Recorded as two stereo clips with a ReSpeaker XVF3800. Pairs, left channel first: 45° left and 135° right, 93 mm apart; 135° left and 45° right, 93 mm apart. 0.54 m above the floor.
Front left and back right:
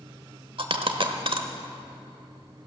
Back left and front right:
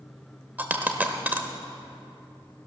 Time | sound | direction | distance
0.6 | a dropped coin | 115° right | 1.0 m